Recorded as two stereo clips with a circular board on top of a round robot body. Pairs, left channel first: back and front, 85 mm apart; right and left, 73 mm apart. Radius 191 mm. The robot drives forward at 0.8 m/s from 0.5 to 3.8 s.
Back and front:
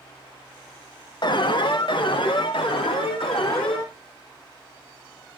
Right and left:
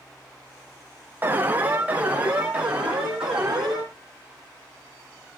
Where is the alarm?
155° left, 1.6 m; by 3.9 s 170° left, 3.5 m.